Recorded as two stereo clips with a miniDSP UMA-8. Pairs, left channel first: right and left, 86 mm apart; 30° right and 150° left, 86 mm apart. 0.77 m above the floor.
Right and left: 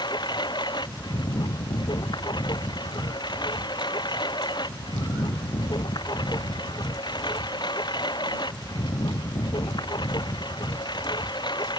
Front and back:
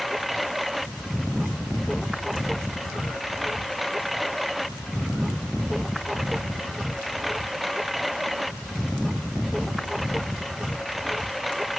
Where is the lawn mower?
120° right.